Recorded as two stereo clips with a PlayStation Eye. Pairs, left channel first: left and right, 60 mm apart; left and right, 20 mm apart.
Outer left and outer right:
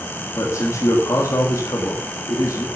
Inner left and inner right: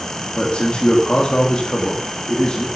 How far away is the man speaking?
About 1.8 m.